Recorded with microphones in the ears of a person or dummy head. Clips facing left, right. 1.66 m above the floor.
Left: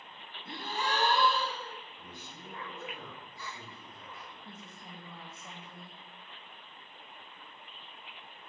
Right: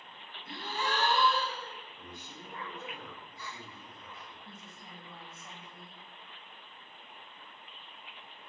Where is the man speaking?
35° right (ahead or behind), 1.2 m.